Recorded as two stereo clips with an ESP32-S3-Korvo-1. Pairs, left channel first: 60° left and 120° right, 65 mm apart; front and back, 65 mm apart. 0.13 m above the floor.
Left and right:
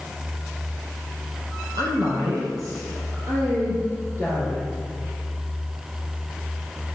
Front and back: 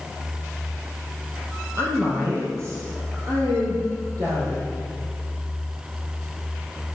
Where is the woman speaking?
135° right, 4.5 m; by 4.7 s 170° right, 5 m.